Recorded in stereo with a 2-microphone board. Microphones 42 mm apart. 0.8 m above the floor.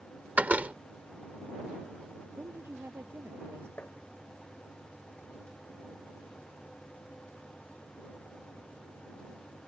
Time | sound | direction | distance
0.4 | a door slam | 40° right (ahead or behind) | ?
2.4 | a woman speaking | 80° right | ?
3.8 | tapping | 50° left (ahead or behind) | ?